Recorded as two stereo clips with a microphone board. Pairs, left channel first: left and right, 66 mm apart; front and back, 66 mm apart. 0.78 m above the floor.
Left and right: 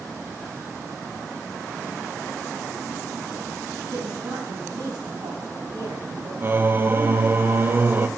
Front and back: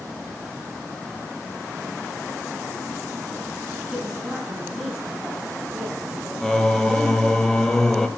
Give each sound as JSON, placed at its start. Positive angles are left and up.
{"t": 3.9, "sound": "a woman speaking", "azimuth_deg": -100, "distance_m": 6.0}
{"t": 6.4, "sound": "singing", "azimuth_deg": -75, "distance_m": 0.7}